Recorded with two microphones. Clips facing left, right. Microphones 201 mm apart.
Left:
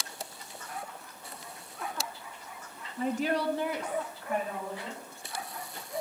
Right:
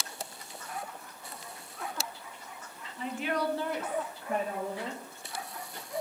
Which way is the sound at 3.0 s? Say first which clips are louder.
Left 3 dB; 50° left (ahead or behind).